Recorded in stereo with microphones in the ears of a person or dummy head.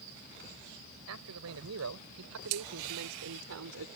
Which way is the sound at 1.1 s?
85° right.